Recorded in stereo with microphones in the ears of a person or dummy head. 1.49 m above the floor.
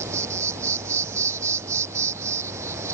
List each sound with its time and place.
0.0 s an insect: 10° right (ahead or behind)